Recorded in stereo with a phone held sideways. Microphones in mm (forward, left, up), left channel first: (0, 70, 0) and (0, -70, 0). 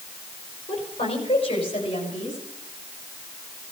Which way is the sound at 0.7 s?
40° left (ahead or behind).